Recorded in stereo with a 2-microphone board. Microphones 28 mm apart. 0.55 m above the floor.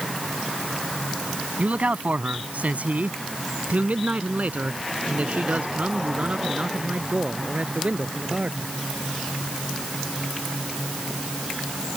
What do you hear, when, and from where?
1.6 s a man speaking: 70° right (ahead or behind); by 8.7 s 55° right (ahead or behind)